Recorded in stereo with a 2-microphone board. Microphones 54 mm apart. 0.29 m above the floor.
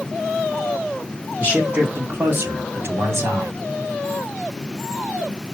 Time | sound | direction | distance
1.4 | a man speaking | 25° right (ahead or behind) | 2.5 m